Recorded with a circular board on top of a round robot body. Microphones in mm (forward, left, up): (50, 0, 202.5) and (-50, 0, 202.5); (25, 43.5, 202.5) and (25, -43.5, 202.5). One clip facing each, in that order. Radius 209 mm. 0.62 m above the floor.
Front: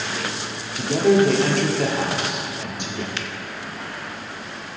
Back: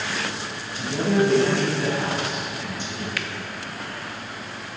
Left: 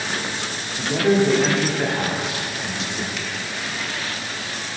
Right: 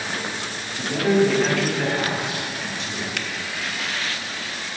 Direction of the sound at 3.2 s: 60° right.